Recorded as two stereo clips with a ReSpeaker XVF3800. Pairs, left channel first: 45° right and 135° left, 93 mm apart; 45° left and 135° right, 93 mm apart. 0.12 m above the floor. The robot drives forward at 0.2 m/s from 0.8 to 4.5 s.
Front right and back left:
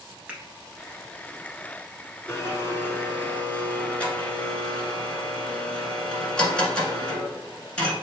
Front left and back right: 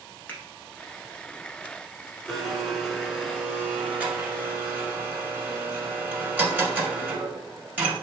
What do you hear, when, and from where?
0.3 s a finger snap: 75° left, 1.1 m
2.3 s a blender: 50° right, 1.1 m; by 8.0 s 105° right, 1.1 m